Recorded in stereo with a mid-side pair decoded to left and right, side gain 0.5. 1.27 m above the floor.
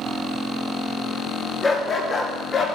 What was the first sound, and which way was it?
A dog barking, 25° left.